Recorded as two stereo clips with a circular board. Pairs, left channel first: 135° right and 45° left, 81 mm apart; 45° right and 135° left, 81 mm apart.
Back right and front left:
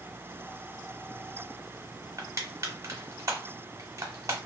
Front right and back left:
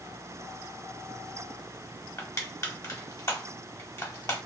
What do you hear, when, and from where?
2.2 s crushing: straight ahead, 0.9 m